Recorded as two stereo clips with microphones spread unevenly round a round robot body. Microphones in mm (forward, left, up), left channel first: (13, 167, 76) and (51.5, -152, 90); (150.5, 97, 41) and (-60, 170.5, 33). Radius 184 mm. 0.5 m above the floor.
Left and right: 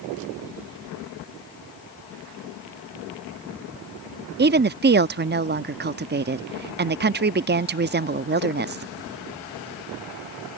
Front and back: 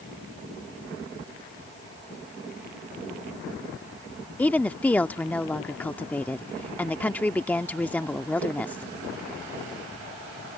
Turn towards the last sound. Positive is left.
turn(degrees=-100)